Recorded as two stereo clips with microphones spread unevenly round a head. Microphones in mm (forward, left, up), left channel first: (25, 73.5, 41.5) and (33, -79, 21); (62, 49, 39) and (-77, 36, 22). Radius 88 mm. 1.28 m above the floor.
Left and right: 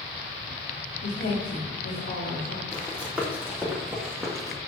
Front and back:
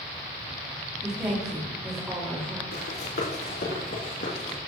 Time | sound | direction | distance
1.0 | a woman speaking | 110° left | 2.5 m
2.7 | running footsteps | 5° right | 4 m